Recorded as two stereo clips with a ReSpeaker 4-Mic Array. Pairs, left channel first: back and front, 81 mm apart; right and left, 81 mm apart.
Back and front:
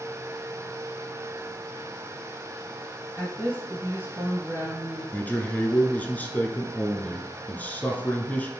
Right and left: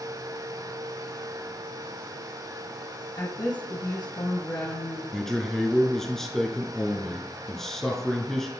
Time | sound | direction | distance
3.2 | a woman speaking | 60° right | 3 m
5.1 | a man speaking | 170° right | 1.1 m